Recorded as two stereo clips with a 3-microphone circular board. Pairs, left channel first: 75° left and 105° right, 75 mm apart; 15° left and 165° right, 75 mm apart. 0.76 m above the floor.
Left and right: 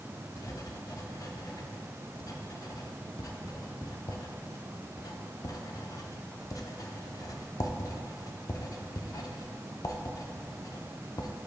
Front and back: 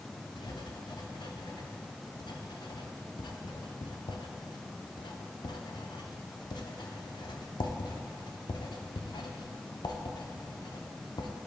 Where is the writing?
35° left, 0.7 m.